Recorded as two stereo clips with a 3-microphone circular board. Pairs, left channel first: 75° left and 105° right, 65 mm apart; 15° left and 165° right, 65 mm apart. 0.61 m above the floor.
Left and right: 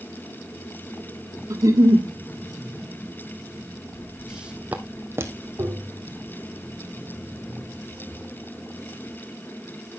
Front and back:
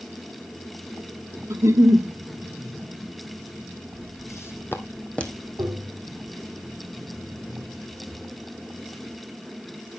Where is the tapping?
135° right, 2 m.